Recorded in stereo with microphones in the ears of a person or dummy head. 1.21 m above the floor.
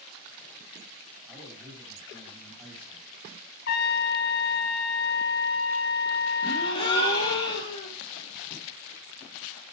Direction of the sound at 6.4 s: 20° left (ahead or behind).